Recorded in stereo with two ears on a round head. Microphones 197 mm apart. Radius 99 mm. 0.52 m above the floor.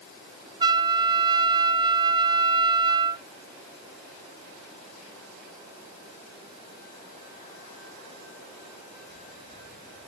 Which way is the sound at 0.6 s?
20° right (ahead or behind).